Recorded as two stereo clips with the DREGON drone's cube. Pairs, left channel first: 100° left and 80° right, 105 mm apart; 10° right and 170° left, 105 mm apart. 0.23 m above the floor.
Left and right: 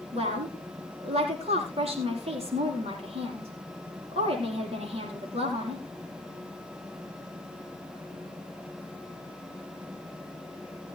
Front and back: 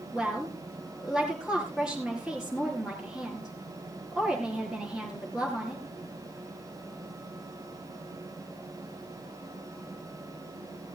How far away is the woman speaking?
About 5.5 m.